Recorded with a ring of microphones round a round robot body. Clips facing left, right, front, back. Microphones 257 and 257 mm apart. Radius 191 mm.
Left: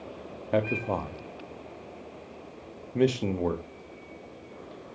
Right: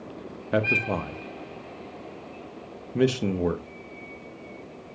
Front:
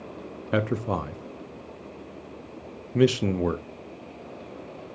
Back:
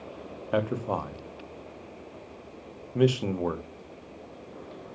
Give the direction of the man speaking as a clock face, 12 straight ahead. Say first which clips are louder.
Right 1 dB, front 2 dB; 1 o'clock.